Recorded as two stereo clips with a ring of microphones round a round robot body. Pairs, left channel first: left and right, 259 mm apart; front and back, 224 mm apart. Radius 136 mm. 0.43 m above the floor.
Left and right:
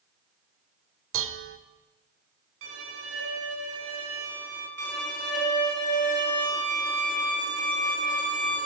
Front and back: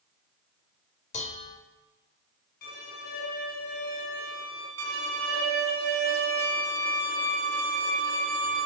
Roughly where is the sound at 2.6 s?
Ahead right.